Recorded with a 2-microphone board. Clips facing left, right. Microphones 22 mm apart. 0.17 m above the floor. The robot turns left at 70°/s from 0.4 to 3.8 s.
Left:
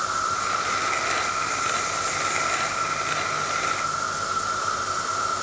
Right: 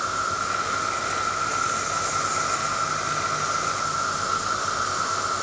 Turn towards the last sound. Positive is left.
turn(degrees=-110)